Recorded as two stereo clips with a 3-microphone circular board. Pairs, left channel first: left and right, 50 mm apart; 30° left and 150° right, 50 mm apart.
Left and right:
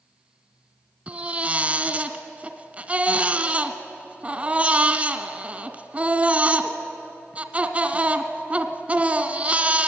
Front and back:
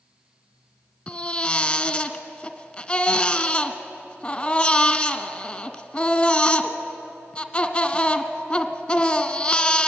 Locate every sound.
1.1 s a baby crying: 35° right, 1.0 m